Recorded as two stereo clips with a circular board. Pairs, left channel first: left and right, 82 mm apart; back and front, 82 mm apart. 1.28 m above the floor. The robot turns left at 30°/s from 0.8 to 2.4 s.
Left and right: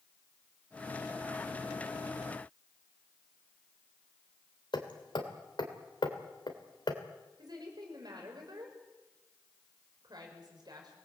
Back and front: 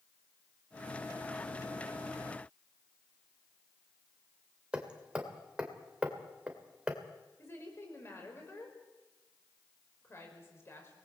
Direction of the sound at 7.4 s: 125° right.